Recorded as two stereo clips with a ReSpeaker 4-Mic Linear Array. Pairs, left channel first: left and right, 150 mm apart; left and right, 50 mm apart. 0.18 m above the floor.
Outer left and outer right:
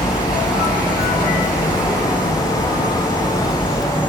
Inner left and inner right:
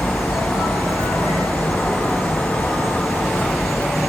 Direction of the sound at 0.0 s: 5° right (ahead or behind).